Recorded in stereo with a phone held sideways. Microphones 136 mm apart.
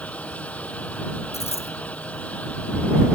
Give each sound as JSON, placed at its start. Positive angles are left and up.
{"t": 0.0, "sound": "a fan", "side_deg": 10}
{"t": 1.3, "sound": "a dropped coin", "side_deg": 50}